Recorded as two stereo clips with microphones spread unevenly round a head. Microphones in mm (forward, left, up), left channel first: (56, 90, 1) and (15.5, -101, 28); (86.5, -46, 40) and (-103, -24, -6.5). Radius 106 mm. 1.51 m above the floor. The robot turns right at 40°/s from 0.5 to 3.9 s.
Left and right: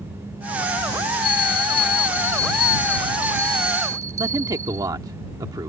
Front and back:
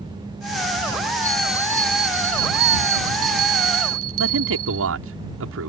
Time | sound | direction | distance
1.2 | a bell | 75° left | ?
4.2 | a man speaking | 175° right | ?